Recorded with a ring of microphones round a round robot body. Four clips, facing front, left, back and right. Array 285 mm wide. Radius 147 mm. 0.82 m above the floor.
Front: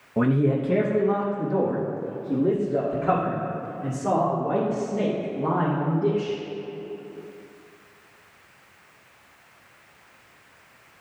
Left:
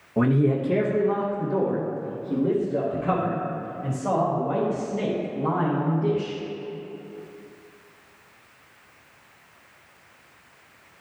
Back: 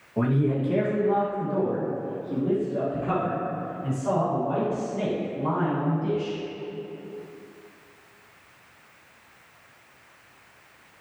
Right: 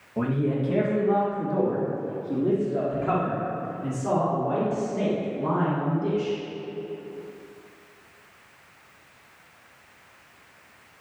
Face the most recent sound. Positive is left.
turn(degrees=-15)